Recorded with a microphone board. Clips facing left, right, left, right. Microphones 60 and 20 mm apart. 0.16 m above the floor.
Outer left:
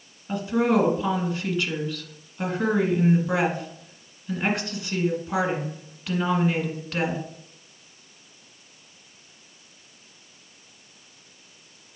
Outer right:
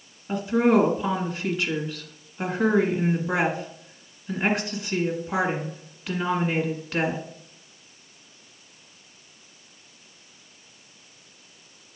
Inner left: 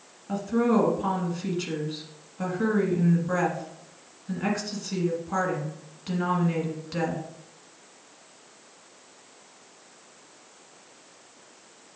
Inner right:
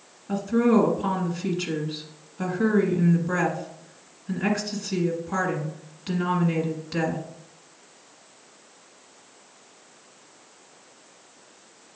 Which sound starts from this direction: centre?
A woman speaking, at 0.3 s.